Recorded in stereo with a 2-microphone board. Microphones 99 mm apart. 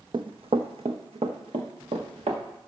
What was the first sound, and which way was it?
Running footsteps, 55° right (ahead or behind).